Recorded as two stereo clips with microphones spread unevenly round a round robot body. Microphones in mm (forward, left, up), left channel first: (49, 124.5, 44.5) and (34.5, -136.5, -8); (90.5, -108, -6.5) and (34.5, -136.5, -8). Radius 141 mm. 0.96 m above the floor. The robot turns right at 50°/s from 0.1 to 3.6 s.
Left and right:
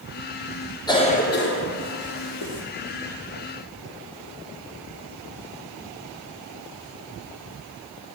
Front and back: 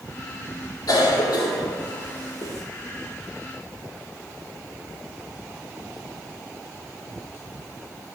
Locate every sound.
0.9 s a cough: 10° left, 1.8 m; by 2.6 s 100° left, 1.8 m